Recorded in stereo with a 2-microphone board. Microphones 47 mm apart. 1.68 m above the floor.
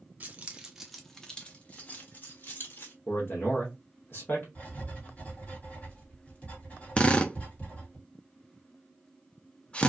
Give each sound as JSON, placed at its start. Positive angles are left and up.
{"t": 0.2, "sound": "keys jangling", "side_deg": -35, "distance_m": 0.8}
{"t": 3.1, "sound": "a man speaking", "side_deg": 50, "distance_m": 0.9}
{"t": 4.5, "sound": "writing", "side_deg": 30, "distance_m": 1.9}
{"t": 7.0, "sound": "a drill", "side_deg": 25, "distance_m": 0.5}